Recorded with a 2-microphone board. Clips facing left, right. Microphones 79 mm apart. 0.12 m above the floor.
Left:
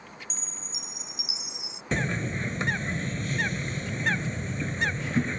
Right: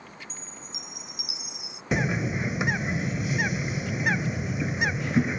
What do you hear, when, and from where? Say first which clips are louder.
0.3 s a chime: even; 25° left (ahead or behind)
1.9 s a bird: right 3 dB; 10° right (ahead or behind)